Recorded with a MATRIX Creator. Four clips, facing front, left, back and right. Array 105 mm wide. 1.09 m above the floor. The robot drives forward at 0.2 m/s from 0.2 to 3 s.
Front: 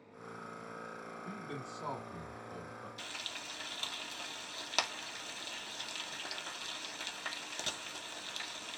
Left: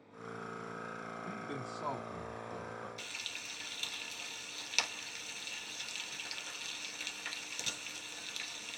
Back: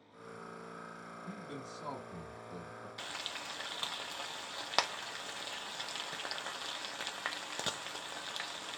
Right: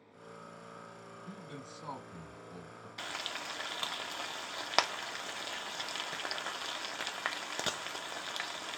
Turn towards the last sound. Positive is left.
turn(degrees=-110)